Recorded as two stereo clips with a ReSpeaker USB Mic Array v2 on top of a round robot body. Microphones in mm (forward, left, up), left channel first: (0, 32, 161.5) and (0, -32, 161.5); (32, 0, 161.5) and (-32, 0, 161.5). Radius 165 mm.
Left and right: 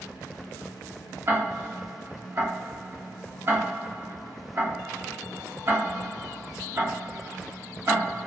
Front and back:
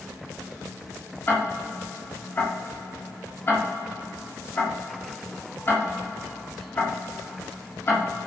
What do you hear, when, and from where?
1.3 s ticking: 50° right, 1.0 m